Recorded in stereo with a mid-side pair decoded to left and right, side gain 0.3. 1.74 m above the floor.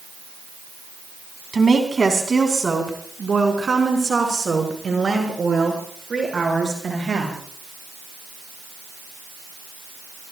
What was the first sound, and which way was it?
A woman speaking, 40° right.